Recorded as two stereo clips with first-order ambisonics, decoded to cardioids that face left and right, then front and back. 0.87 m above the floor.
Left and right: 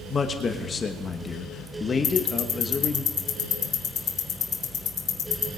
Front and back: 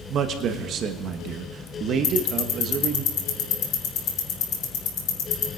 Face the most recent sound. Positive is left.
turn(degrees=35)